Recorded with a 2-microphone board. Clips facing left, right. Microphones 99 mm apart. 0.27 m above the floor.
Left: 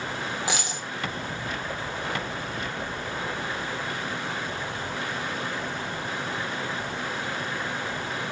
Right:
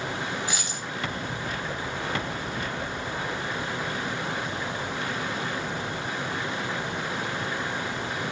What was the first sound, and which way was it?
A dropped coin, 85° left.